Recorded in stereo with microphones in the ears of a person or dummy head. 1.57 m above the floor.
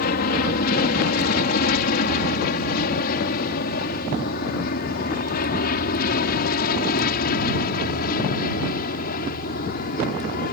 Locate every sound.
0.0 s an aircraft: 50° left (ahead or behind)